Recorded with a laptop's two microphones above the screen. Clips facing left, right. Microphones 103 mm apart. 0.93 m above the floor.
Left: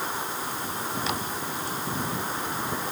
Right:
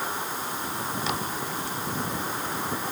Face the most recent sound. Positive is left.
No sound to turn to.